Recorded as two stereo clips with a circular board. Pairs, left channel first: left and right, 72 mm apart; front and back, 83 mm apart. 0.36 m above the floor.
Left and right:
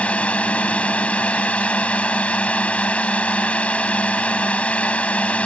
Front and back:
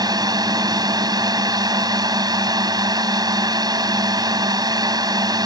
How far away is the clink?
No clink in this recording.